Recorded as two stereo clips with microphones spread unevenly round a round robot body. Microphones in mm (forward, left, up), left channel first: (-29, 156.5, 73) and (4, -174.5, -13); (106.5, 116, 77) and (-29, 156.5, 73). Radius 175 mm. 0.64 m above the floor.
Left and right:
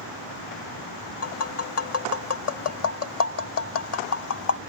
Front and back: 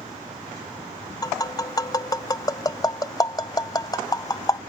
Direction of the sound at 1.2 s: 45° left.